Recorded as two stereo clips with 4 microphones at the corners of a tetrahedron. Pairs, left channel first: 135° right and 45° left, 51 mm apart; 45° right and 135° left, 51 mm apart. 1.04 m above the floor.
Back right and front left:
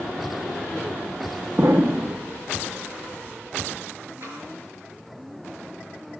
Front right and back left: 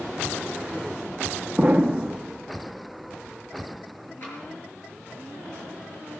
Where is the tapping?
Straight ahead, 6 m.